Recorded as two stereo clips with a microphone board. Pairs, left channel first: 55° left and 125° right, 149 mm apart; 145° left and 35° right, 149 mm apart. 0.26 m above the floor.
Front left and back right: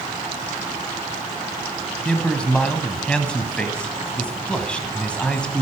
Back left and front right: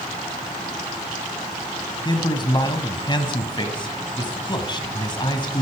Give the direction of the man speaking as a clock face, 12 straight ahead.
8 o'clock.